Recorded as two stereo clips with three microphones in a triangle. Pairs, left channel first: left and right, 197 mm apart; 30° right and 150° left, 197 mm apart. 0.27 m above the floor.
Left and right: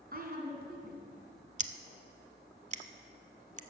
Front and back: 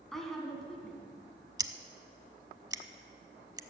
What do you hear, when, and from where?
0.1 s a woman speaking: 120° right, 2 m
1.6 s scissors: 140° right, 0.6 m